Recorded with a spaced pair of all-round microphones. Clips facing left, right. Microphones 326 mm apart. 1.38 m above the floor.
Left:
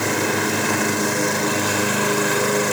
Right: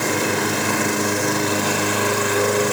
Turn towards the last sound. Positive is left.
No sound to turn to.